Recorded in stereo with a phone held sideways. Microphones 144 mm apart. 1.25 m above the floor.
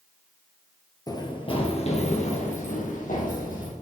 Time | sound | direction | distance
1.1 | running footsteps | 25° left (ahead or behind) | 1.5 m